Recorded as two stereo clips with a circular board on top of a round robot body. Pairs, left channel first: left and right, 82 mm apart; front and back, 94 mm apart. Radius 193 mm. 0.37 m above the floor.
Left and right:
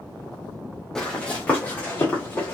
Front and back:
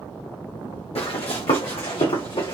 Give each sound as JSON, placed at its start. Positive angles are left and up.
{"t": 0.9, "sound": "running footsteps", "azimuth_deg": 10, "distance_m": 1.2}